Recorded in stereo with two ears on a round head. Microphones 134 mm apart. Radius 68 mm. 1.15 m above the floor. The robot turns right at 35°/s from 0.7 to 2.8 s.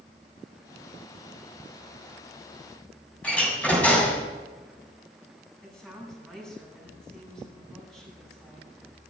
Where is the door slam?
10° left (ahead or behind), 7 m.